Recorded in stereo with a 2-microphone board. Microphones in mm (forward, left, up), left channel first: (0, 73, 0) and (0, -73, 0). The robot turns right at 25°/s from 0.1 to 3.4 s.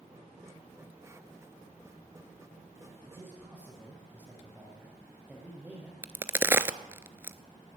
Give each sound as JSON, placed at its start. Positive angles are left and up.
{"t": 3.0, "sound": "a man speaking", "side_deg": -20, "distance_m": 5.0}
{"t": 6.0, "sound": "a crack", "side_deg": -15, "distance_m": 0.5}